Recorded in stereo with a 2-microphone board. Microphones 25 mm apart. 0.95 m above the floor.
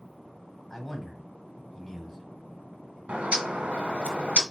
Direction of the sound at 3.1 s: 65° right (ahead or behind).